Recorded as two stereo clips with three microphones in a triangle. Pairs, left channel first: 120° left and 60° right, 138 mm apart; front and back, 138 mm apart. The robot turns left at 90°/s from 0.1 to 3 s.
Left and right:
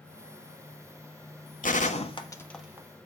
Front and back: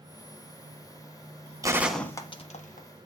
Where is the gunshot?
115° left, 1.4 m; by 2.9 s 5° left, 1.4 m.